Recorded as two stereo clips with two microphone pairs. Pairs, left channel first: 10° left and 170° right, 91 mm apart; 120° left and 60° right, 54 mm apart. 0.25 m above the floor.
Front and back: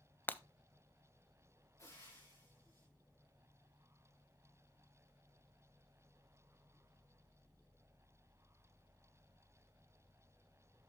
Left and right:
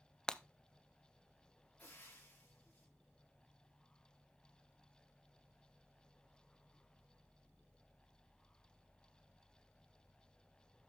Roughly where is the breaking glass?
Ahead left.